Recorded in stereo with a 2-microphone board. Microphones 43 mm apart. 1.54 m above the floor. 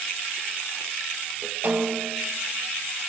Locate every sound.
1.6 s a snare drum: 60° right (ahead or behind), 1.4 m